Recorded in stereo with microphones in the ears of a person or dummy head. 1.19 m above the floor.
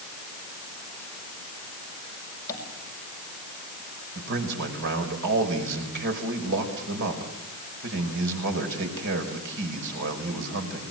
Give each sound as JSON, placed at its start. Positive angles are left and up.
{"t": 2.5, "sound": "tapping", "side_deg": 20, "distance_m": 5.5}
{"t": 4.2, "sound": "a man speaking", "side_deg": -70, "distance_m": 5.0}